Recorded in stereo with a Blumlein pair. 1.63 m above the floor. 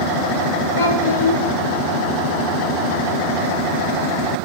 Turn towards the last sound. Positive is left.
turn(degrees=55)